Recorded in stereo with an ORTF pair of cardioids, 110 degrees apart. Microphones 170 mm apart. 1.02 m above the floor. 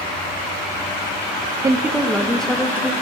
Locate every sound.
1.6 s a woman speaking: 20° right, 0.5 m; by 2.9 s 10° left, 1.1 m